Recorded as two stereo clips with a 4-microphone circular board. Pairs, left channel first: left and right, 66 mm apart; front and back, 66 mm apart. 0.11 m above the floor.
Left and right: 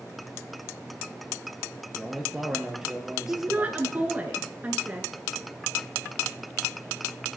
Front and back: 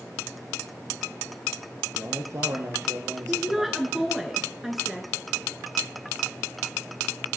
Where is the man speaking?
175° right, 2.0 m.